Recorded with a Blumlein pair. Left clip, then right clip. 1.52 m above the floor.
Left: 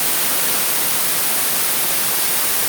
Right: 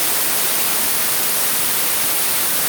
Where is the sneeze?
No sneeze in this recording.